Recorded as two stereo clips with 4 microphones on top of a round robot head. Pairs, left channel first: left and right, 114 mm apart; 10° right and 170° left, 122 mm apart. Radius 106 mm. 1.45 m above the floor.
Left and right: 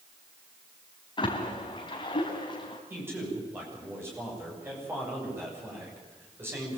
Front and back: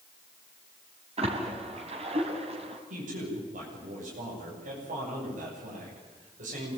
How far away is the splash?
About 4 m.